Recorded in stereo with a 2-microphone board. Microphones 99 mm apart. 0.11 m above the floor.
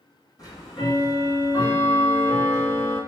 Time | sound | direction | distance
0.4 | ticking | 40° left (ahead or behind) | 2 m